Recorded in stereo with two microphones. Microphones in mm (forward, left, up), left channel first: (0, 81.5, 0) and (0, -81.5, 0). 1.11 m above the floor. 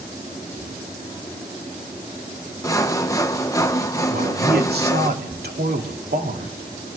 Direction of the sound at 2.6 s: 20° left (ahead or behind).